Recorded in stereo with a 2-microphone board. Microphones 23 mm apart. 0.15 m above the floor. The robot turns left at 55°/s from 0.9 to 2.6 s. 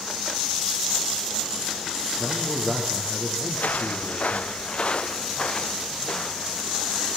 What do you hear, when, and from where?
2.2 s a man speaking: 50° right (ahead or behind), 7 m; by 4.5 s 30° right (ahead or behind), 7 m
3.5 s footsteps: 75° left (ahead or behind), 2.0 m; by 6.6 s 20° left (ahead or behind), 3.5 m